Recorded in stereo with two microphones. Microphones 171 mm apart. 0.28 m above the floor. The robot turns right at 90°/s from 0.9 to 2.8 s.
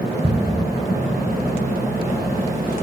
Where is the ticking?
35° right (ahead or behind), 1.8 m.